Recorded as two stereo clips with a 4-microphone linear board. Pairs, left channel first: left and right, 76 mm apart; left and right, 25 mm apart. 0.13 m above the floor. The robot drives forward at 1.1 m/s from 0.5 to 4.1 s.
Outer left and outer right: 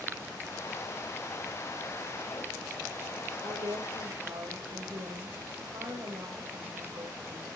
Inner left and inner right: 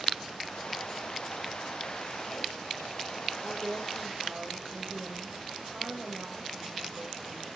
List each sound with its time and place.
3.4 s a woman speaking: 65° right (ahead or behind), 2.5 m; by 7.5 s 60° right (ahead or behind), 3 m